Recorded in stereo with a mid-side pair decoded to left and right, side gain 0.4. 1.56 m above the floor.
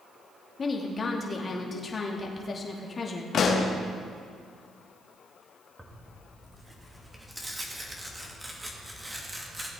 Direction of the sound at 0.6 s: 45° left.